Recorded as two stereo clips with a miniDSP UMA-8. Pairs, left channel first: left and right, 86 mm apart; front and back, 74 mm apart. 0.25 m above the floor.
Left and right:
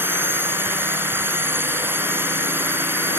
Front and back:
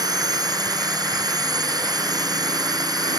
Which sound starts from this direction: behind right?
A drone, at 0.0 s.